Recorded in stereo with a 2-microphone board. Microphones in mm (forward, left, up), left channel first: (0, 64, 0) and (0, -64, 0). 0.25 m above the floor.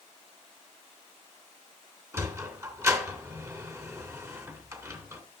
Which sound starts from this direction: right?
A sliding door, at 2.1 s.